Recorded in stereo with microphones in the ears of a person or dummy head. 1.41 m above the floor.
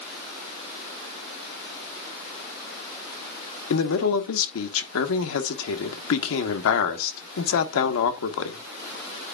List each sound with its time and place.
3.7 s a man speaking: 80° left, 1.2 m